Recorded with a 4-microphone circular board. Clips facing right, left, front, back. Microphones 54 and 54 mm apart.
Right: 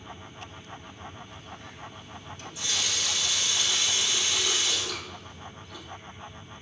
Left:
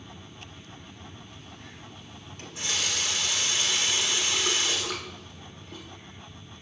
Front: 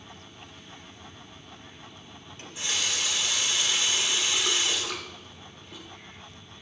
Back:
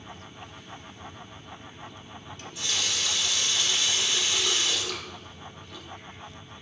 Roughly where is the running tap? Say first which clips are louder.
Left 1 dB, front 1 dB; ahead left.